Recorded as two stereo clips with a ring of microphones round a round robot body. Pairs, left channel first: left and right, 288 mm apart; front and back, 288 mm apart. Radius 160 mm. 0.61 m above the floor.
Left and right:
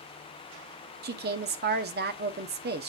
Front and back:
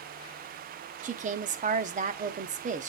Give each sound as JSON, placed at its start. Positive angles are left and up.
{"t": 1.0, "sound": "a woman speaking", "azimuth_deg": -130, "distance_m": 0.8}